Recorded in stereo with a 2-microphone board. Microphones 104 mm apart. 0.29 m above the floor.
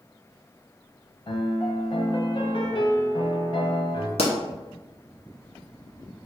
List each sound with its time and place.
1.3 s a piano: 55° left (ahead or behind), 0.6 m
4.2 s a pop: 80° left, 0.8 m